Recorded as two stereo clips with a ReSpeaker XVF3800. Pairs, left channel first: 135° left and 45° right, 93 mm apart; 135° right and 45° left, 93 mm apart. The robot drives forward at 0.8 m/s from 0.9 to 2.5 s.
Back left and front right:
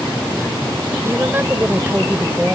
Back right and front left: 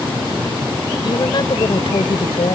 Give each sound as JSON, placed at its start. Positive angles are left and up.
{"t": 1.0, "sound": "a woman speaking", "azimuth_deg": -105}